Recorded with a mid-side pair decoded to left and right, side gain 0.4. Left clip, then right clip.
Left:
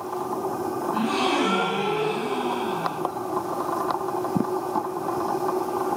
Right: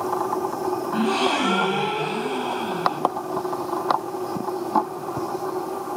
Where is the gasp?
45° right, 0.6 m.